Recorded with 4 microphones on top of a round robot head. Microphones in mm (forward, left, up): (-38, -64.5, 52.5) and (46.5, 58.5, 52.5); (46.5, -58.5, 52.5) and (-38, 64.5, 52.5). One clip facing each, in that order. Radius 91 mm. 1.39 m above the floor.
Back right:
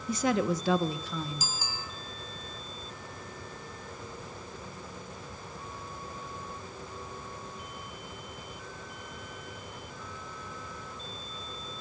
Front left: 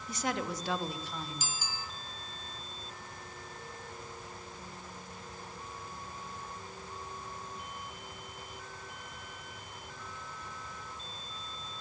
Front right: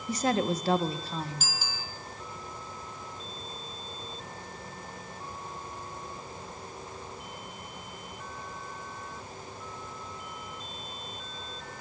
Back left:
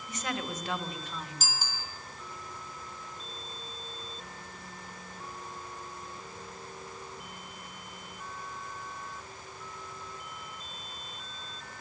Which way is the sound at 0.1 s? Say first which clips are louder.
Back right 8 dB, front right 9 dB; 115° right.